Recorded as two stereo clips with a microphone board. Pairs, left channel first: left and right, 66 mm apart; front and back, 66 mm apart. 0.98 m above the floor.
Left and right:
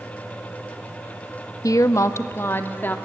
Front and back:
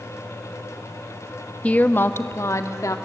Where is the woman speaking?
70° left, 0.9 m; by 3.0 s 30° left, 1.7 m.